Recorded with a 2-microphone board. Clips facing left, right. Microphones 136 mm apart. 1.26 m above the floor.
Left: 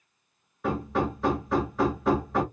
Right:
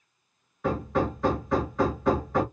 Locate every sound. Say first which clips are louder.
0.6 s hammering: right 1 dB; centre (ahead or behind), 1.2 m